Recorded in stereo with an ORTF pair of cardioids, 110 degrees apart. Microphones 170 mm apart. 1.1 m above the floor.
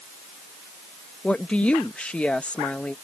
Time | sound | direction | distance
1.2 | a woman speaking | 5° left | ?